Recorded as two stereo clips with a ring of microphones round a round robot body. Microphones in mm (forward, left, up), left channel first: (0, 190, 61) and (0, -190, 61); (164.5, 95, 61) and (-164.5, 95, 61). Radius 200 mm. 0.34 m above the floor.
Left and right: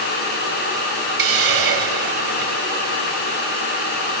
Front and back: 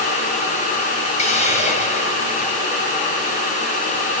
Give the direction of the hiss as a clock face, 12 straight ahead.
2 o'clock.